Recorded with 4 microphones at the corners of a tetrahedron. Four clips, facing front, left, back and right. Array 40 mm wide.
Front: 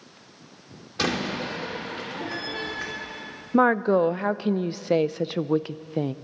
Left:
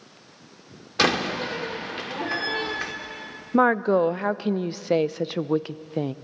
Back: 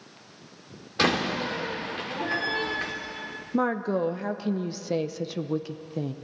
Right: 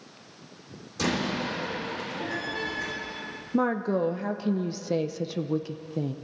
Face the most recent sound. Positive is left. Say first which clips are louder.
# left 7 dB, front 7 dB
turn(degrees=50)